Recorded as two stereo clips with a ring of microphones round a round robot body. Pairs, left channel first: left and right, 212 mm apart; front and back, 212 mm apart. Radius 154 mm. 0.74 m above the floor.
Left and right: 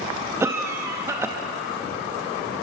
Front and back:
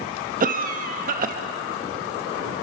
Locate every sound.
0.4 s a cough: 165° right, 1.0 m